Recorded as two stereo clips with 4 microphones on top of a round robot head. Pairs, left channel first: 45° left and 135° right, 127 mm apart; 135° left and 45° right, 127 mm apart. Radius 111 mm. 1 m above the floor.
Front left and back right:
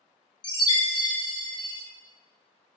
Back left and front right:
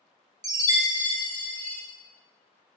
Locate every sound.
0.4 s a chime: 5° left, 0.8 m